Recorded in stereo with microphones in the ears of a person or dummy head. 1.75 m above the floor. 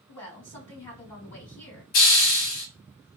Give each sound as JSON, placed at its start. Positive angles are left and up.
{"t": 0.1, "sound": "a woman speaking", "side_deg": 20, "distance_m": 2.0}
{"t": 1.9, "sound": "a hiss", "side_deg": 50, "distance_m": 1.0}